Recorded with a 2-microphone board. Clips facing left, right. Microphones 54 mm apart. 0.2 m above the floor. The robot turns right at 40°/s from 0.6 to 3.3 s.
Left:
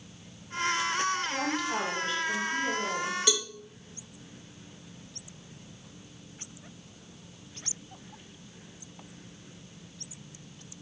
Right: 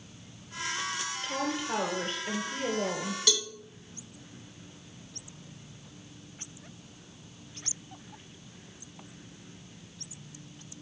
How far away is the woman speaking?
About 3.5 m.